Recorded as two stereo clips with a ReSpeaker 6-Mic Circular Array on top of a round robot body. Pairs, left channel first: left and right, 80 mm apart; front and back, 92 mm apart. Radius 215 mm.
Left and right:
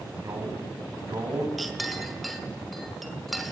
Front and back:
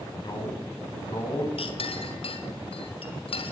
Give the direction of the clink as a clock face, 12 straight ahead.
12 o'clock.